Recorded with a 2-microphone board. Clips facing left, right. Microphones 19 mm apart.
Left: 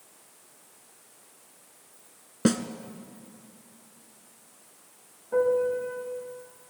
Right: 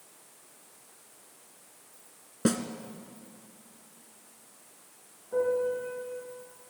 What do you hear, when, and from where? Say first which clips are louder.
2.5 s a snare drum: left 3 dB; 30° left (ahead or behind), 1.0 m
5.3 s a piano: left 4 dB; 85° left, 7.5 m